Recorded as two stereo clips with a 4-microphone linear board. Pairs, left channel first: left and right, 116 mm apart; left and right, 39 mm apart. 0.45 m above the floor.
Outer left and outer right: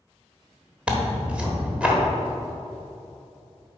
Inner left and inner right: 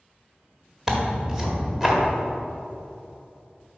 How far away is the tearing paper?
About 1.2 m.